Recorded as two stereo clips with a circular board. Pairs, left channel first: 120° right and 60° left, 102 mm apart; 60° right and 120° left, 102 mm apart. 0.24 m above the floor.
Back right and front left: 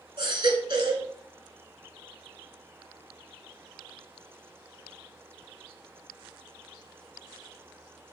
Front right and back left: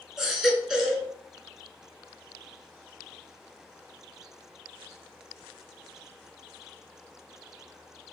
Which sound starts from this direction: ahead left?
A baby crying, at 0.2 s.